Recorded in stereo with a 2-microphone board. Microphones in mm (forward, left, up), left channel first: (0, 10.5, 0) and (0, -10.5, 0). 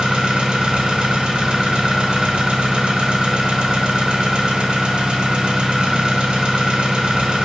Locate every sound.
0.0 s an engine running: 65° right (ahead or behind), 0.9 m